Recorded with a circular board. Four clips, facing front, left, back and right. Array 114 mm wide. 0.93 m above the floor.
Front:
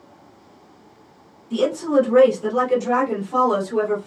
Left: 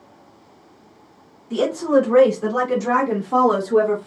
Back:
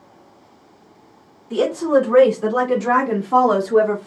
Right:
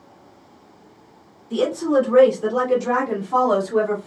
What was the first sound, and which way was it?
A woman speaking, 135° left.